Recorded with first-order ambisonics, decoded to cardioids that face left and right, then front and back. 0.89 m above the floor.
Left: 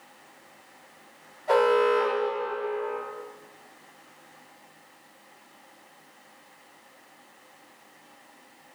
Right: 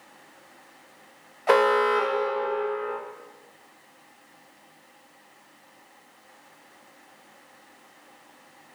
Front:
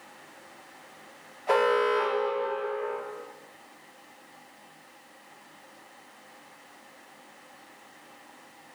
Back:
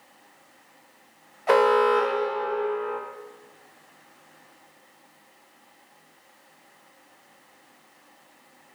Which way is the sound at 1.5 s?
115° right.